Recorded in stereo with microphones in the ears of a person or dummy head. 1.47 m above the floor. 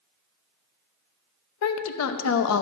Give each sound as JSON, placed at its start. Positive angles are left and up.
{"t": 1.6, "sound": "a woman speaking", "side_deg": 80, "distance_m": 0.7}